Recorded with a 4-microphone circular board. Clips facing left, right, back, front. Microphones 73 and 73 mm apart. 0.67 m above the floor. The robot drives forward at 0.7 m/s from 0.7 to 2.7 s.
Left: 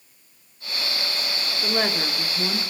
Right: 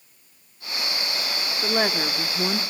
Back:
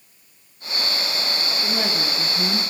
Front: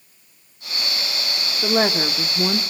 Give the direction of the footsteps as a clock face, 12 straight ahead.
No footsteps in this recording.